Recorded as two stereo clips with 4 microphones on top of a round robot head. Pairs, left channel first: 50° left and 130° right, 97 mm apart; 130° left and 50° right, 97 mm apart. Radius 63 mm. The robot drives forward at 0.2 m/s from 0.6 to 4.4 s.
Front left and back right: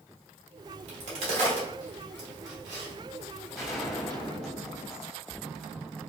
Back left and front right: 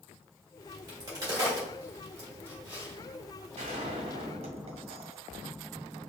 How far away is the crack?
About 1.7 m.